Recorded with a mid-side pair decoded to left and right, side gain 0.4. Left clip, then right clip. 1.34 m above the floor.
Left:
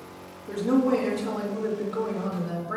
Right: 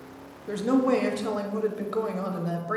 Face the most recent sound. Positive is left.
turn(degrees=-70)